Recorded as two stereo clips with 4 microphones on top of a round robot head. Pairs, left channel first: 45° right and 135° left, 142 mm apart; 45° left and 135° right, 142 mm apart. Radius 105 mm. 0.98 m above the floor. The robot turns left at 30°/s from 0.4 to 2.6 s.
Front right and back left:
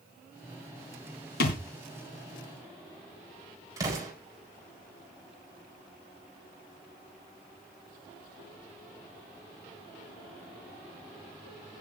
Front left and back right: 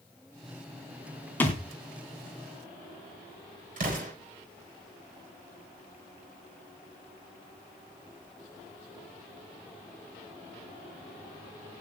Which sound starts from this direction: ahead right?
A thud, at 1.4 s.